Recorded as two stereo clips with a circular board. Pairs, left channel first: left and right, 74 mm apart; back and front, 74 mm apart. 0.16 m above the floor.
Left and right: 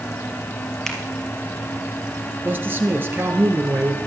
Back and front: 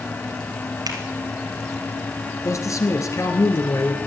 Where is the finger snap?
10° left, 3 m.